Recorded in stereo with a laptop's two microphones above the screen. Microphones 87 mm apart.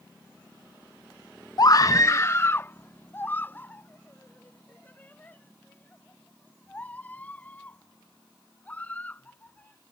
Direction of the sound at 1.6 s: 50° left (ahead or behind).